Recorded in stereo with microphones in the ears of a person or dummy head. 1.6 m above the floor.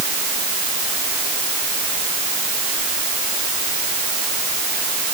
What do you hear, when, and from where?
Only background noise.